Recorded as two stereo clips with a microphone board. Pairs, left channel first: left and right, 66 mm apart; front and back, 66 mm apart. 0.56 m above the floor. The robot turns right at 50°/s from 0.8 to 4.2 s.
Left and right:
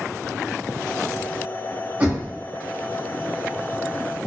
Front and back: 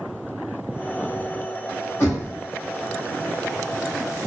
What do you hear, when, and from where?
2.0 s knocking: 35° right, 1.1 m; by 2.3 s 15° right, 1.1 m